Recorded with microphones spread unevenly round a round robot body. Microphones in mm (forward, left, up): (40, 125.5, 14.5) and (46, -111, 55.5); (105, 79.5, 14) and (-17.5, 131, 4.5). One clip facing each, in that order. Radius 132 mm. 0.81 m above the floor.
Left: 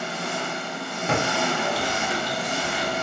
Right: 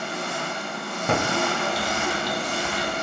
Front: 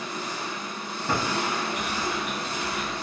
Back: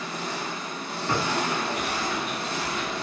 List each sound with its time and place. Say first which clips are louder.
0.0 s an engine running: left 1 dB, back 1 dB; 145° left, 2 m
1.1 s typing on a keyboard: right 1 dB, back 1 dB; 110° right, 1.0 m